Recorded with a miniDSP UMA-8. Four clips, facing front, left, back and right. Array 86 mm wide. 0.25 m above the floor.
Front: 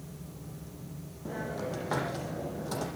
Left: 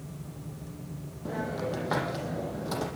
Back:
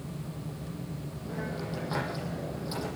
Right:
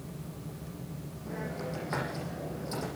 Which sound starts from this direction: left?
A hiss, at 1.2 s.